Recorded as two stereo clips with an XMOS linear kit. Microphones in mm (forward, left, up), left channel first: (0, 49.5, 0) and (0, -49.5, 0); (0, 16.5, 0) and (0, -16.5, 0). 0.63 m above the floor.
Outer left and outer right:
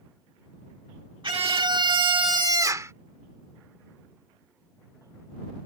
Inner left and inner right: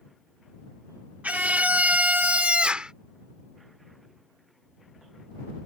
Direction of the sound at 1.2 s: 55° right (ahead or behind).